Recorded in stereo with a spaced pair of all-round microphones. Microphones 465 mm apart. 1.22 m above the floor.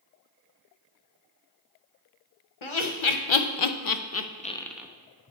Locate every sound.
2.6 s laughter: 85° left, 1.0 m; by 4.9 s 5° right (ahead or behind), 0.6 m